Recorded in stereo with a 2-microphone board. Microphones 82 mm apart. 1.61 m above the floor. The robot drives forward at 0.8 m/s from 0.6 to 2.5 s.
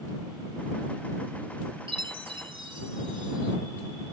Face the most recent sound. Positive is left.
turn(degrees=-85)